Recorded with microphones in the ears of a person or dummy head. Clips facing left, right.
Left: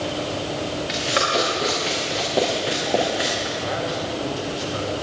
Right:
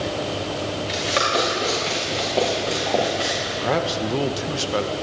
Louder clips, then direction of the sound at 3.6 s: Right 3 dB; 60° right (ahead or behind).